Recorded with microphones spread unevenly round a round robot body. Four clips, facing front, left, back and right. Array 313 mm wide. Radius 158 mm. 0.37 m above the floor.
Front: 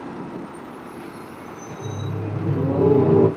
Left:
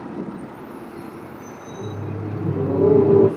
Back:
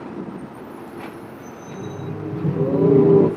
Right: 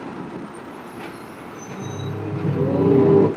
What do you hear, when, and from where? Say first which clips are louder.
1.7 s laughter: even, back 1 dB; straight behind, 1.2 m